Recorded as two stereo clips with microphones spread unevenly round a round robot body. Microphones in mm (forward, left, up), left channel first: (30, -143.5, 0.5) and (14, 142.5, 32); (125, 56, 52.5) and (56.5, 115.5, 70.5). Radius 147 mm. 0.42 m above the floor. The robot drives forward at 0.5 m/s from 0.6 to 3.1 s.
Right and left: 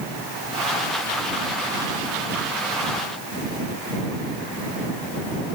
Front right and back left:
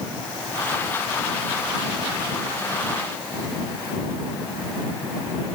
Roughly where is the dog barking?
No dog barking in this recording.